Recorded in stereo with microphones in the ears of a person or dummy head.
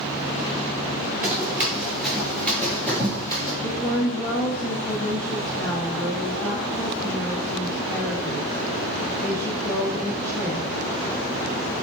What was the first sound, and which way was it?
Running footsteps, 15° right (ahead or behind).